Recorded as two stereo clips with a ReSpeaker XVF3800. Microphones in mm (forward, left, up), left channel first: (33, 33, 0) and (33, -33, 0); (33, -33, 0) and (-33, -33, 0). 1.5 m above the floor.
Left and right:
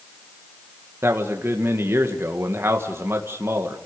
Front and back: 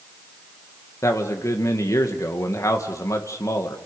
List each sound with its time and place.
1.0 s a man speaking: 40° right, 1.9 m